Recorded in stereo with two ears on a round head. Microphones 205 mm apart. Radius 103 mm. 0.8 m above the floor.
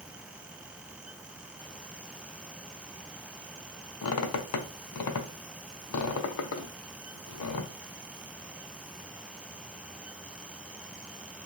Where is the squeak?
75° left (ahead or behind), 0.6 m.